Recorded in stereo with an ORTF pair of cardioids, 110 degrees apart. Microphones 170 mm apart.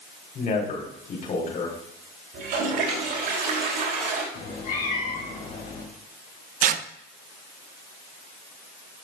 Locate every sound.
0.3 s a man speaking: 50° left, 4 m
2.3 s a toilet flushing: 60° right, 3 m
4.3 s a cat meowing: 55° left, 3.5 m
6.6 s tearing paper: 55° right, 0.6 m